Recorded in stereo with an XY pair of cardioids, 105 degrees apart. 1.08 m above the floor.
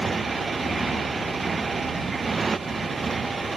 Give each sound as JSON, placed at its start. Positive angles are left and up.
{"t": 0.0, "sound": "a motorcycle", "azimuth_deg": -30}